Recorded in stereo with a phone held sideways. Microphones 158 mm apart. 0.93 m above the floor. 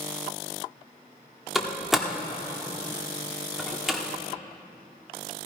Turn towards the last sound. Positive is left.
turn(degrees=0)  # may be behind; listen again after turning